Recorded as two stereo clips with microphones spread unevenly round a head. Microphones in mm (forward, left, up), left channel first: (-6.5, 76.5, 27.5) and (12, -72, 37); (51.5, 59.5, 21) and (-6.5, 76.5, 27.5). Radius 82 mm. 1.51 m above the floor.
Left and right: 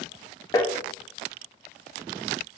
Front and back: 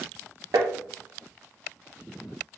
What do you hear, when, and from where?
0.5 s tapping: 165° left, 0.5 m